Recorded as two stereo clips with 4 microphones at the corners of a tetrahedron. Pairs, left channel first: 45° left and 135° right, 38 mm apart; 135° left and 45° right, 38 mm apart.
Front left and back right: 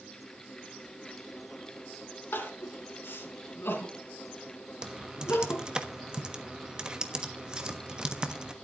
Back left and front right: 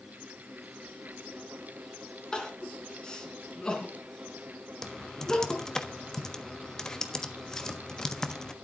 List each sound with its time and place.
2.3 s crying: 65° left, 3 m
4.8 s typing on a keyboard: 170° right, 1.2 m